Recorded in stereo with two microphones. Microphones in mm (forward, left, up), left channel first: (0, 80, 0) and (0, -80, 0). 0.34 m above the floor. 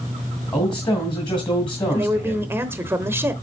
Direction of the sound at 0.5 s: 30° left (ahead or behind).